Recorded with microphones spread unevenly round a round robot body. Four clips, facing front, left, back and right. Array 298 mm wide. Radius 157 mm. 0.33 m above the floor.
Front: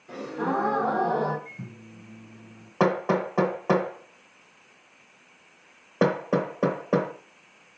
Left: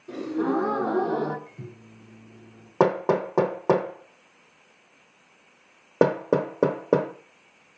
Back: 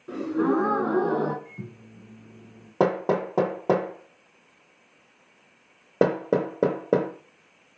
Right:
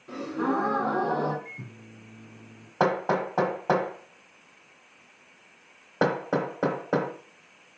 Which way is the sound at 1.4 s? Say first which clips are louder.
Left 1 dB, back 1 dB; 175° left.